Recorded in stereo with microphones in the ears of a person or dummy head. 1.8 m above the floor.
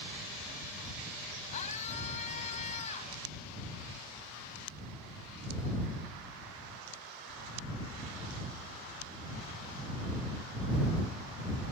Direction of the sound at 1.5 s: 40° left (ahead or behind).